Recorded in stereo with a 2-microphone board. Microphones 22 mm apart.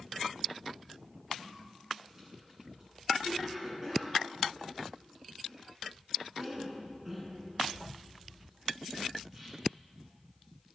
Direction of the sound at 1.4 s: 25° right (ahead or behind).